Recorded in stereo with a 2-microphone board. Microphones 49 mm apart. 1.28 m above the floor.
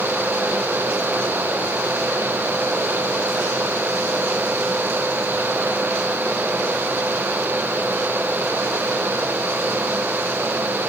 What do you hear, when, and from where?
Only background noise.